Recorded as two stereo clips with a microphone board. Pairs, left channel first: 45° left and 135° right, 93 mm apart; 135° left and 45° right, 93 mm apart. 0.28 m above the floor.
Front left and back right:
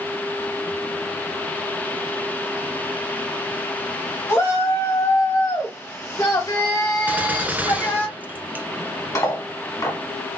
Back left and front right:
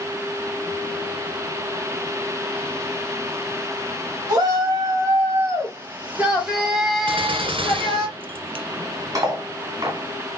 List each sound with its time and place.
4.3 s a shout: 10° right, 1.8 m; by 8.1 s 95° left, 1.2 m
7.1 s a gunshot: 65° right, 0.6 m
9.2 s cutlery clinking: 5° right, 1.3 m